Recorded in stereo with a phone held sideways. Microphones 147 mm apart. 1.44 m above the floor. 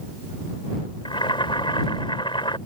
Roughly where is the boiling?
Left.